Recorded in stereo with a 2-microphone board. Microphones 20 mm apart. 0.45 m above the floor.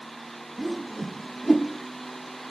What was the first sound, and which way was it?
A whoosh, 5° right (ahead or behind).